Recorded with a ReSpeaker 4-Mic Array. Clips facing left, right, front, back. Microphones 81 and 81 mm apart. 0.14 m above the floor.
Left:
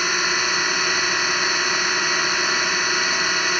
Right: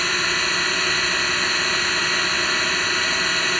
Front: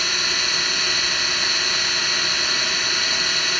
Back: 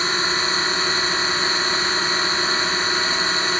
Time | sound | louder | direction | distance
0.0 | a drone | left 1 dB, back 4 dB | 160° left | ?